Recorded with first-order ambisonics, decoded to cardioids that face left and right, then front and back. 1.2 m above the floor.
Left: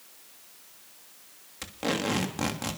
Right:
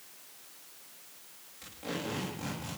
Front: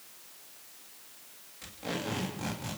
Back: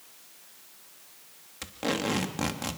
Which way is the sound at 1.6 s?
135° left.